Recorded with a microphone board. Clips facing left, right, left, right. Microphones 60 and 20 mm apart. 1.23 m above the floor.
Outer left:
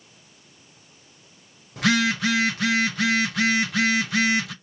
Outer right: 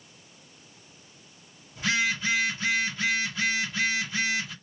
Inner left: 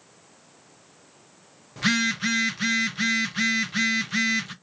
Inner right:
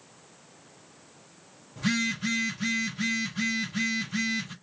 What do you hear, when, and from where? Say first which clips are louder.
1.8 s a phone buzzing: outer left 5 dB, inner left 5 dB; 70° left (ahead or behind), 0.6 m